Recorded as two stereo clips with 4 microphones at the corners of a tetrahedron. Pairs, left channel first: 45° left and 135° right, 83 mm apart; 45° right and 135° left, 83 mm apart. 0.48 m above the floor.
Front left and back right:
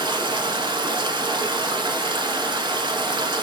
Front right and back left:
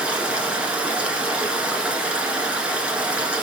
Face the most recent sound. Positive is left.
turn(degrees=-150)